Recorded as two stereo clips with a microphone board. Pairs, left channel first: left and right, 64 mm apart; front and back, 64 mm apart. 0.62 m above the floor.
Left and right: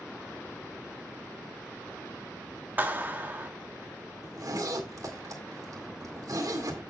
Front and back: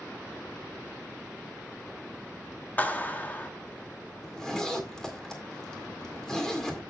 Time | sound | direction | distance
2.8 | a clap | 45° right | 1.0 m
4.2 | a zipper | 80° right | 2.0 m